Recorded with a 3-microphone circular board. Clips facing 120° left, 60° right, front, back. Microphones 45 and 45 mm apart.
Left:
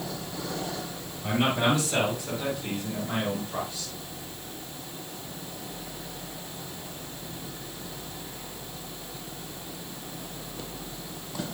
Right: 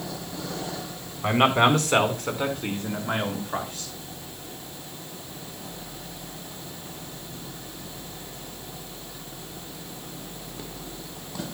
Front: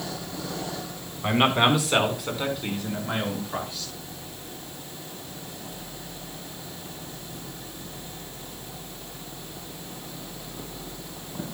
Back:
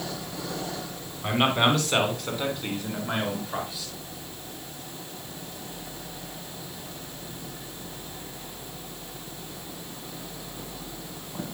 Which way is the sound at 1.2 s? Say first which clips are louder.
Right 5 dB, front 2 dB; 75° right.